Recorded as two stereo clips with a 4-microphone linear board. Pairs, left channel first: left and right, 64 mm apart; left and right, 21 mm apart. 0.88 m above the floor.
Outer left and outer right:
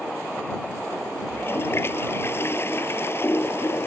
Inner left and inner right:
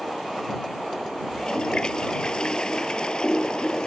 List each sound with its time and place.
1.3 s a toilet flushing: 40° left (ahead or behind)